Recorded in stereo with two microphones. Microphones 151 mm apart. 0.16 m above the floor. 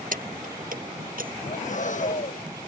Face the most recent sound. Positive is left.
turn(degrees=55)  # may be behind; listen again after turning